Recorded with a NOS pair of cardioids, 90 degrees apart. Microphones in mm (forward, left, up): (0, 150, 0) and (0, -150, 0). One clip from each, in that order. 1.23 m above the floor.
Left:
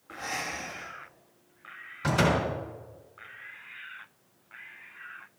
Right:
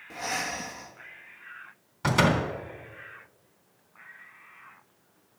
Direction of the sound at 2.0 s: 35° right.